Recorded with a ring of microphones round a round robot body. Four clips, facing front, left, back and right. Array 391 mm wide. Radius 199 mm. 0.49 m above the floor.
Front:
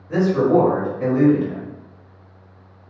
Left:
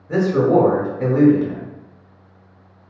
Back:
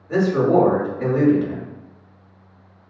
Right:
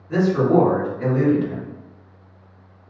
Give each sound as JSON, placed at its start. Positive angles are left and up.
{"t": 0.1, "sound": "a man speaking", "azimuth_deg": 115, "distance_m": 1.7}